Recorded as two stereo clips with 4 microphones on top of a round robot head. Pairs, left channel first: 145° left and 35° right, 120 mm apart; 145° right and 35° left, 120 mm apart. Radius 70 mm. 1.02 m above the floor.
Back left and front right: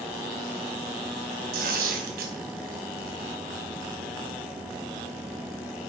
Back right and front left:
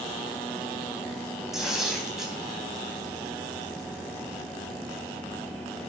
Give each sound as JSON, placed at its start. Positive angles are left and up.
{"t": 1.5, "sound": "tearing paper", "azimuth_deg": -50, "distance_m": 4.0}